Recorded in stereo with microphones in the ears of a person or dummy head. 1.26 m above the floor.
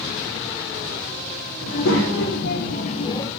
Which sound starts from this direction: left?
A child speaking, at 1.6 s.